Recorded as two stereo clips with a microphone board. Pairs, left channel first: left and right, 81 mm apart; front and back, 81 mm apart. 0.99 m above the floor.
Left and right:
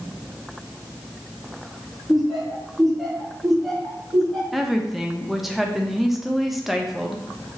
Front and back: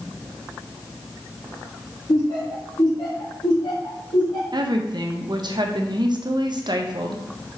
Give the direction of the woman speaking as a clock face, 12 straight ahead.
6 o'clock.